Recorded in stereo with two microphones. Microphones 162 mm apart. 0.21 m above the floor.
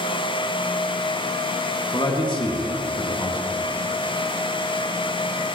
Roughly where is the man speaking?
Left.